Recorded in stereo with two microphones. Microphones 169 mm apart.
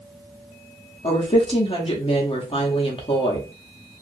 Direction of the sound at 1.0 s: 30° left (ahead or behind).